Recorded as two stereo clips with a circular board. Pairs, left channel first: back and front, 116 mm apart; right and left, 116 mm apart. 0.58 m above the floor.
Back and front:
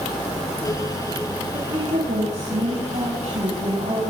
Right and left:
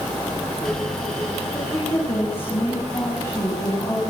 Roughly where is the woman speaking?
Ahead.